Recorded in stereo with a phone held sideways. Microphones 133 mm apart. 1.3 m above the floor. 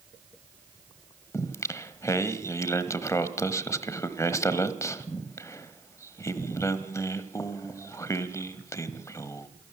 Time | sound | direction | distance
1.3 | singing | 25° left (ahead or behind) | 1.2 m